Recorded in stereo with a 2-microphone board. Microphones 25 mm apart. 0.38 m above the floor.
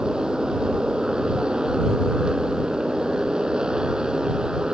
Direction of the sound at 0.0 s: 30° right (ahead or behind).